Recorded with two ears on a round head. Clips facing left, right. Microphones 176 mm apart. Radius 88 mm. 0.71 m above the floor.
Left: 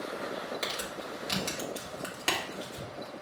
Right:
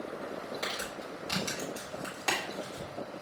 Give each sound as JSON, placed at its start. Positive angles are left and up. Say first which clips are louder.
{"t": 0.6, "sound": "crumpling", "louder": "left 1 dB", "side_deg": 35, "distance_m": 1.4}